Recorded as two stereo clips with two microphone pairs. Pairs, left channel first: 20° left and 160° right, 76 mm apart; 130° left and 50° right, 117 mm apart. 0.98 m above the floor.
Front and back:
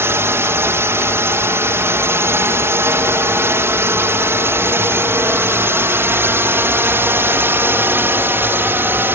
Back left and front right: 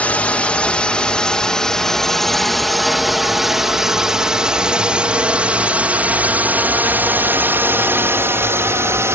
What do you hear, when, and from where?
0.0 s a drone: 160° right; by 9.2 s 110° right